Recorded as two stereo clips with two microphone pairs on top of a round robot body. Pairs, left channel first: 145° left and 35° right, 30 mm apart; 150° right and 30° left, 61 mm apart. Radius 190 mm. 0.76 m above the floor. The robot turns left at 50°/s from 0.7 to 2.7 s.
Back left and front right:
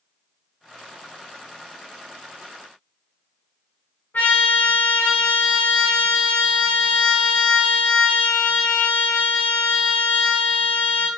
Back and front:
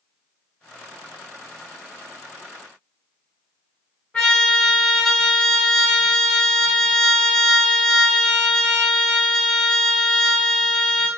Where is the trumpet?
135° left, 1.1 m.